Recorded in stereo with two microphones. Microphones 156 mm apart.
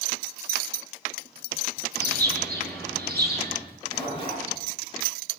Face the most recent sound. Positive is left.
turn(degrees=35)  # may be behind; listen again after turning